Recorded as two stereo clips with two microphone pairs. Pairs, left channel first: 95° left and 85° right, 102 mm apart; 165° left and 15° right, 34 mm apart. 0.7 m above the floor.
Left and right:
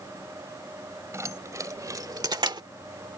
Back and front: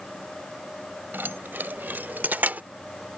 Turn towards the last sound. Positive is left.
turn(degrees=-50)